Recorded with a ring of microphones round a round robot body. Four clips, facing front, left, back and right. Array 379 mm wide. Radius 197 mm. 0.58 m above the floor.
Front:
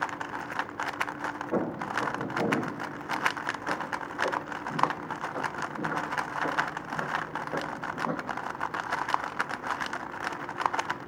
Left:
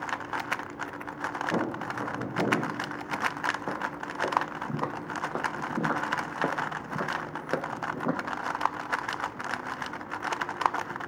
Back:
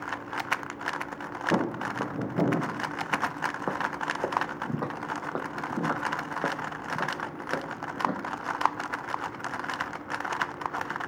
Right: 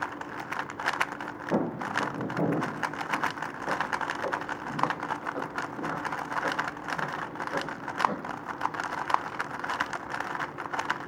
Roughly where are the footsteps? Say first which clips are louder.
Right 6 dB, back 2 dB; behind.